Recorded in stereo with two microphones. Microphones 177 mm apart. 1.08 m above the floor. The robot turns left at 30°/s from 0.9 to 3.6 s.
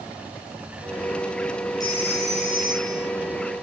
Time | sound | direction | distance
1.8 | a phone ringing | 160° left | 8.5 m